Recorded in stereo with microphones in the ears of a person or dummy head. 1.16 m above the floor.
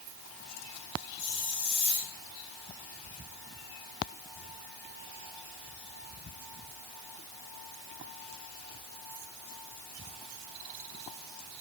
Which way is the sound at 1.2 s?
65° left (ahead or behind).